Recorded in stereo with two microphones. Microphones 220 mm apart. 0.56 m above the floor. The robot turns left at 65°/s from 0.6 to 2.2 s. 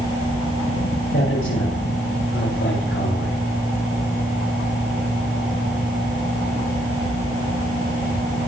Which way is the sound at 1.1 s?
50° left (ahead or behind).